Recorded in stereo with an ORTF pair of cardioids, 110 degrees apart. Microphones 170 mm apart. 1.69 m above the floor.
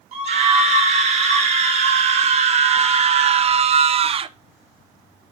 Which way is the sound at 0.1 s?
40° right.